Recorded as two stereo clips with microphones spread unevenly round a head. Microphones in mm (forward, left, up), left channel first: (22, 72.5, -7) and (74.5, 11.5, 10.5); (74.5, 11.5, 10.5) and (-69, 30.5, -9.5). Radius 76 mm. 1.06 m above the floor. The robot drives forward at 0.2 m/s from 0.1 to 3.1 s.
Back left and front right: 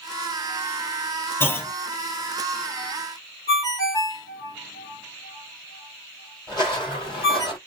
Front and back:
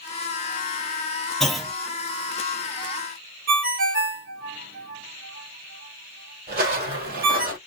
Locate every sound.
1.4 s a clunk: 85° left, 1.1 m; by 1.7 s 90° left, 1.1 m
3.5 s a ringtone: 165° right, 1.0 m
6.5 s footsteps: 175° right, 1.8 m; by 7.6 s 155° left, 2.0 m